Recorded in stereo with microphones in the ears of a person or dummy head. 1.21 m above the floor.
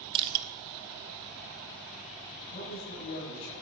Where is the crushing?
25° right (ahead or behind), 0.7 m.